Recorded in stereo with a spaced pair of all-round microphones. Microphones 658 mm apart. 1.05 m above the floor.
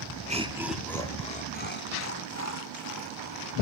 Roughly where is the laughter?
Centre.